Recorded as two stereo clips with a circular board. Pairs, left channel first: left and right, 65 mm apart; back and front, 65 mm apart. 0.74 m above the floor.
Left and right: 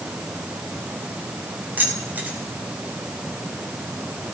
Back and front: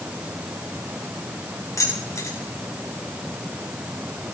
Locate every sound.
1.8 s keys jangling: 150° right, 4.5 m